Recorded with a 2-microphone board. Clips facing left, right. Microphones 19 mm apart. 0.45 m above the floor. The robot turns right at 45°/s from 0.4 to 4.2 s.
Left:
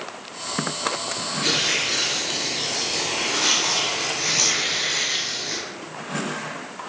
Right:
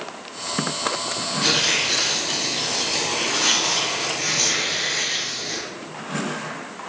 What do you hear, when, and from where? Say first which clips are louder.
1.4 s tearing paper: right 2 dB; 115° right, 1.8 m; by 5.6 s 10° left, 1.8 m